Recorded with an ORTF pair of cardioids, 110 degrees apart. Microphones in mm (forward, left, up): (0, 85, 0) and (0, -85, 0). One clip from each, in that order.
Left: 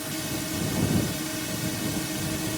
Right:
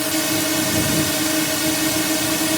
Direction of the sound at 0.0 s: 65° right.